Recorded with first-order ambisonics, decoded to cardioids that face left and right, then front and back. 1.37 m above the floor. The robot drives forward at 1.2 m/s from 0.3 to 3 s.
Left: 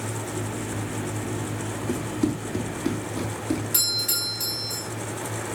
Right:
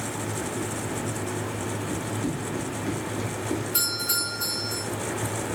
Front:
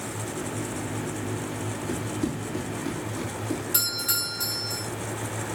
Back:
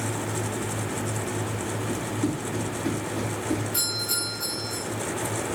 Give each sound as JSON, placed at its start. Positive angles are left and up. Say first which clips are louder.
{"t": 1.9, "sound": "running footsteps", "louder": "left 3 dB, even", "azimuth_deg": 80, "distance_m": 4.0}
{"t": 3.7, "sound": "a doorbell", "louder": "left 3 dB, even", "azimuth_deg": 55, "distance_m": 4.0}